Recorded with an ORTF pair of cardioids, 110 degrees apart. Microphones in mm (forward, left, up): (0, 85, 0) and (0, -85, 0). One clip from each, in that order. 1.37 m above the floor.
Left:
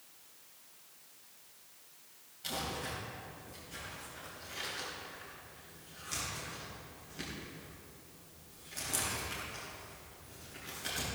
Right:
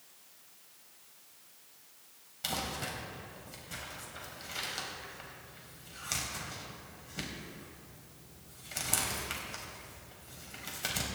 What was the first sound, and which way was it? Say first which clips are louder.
Crumpling: right 2 dB; 65° right.